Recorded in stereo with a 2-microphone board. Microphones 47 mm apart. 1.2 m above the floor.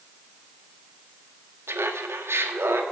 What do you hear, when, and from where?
1.7 s laughter: 80° right, 1.8 m; by 2.8 s 70° right (ahead or behind), 2 m